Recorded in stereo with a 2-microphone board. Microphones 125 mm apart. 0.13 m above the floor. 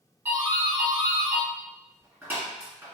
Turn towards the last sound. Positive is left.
turn(degrees=-15)  # may be behind; listen again after turning